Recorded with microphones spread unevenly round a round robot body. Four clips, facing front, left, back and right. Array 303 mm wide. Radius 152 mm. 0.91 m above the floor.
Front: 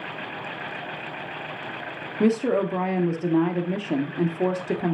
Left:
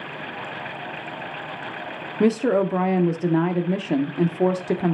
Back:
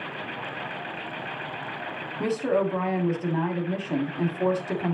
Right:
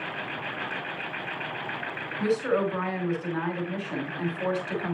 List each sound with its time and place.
2.2 s a woman speaking: 65° left, 1.7 m